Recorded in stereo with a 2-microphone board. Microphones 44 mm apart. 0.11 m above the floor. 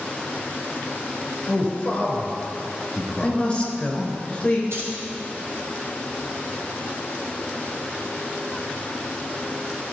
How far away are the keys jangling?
About 3 m.